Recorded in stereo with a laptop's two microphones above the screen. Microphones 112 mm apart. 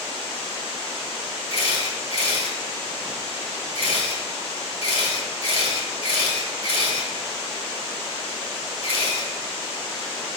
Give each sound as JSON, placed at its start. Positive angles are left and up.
{"t": 1.5, "sound": "a camera shutter", "side_deg": 50, "distance_m": 1.6}